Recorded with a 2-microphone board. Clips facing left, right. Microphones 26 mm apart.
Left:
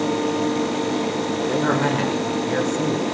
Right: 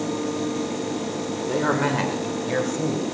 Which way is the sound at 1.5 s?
Centre (ahead or behind).